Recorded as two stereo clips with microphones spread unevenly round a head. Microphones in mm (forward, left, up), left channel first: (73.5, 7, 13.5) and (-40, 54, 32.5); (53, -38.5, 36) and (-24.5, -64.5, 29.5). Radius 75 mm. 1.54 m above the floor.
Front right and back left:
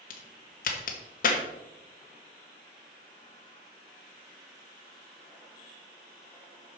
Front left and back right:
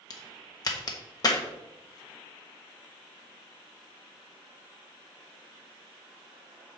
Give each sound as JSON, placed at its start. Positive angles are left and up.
{"t": 0.1, "sound": "a crack", "azimuth_deg": -10, "distance_m": 1.3}